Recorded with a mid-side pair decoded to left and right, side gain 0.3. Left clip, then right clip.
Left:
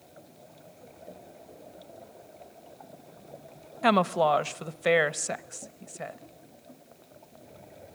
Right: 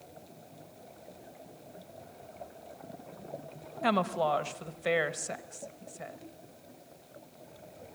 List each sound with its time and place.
3.8 s a woman speaking: 55° left, 0.9 m